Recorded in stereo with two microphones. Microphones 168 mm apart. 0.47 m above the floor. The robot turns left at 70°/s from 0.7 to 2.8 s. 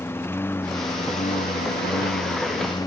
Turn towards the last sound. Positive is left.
turn(degrees=25)  # may be behind; listen again after turning